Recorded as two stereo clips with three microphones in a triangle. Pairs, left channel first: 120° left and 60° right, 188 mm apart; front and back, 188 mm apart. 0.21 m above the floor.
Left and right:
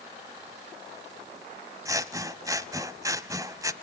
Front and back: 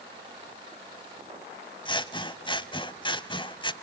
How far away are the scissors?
About 0.6 m.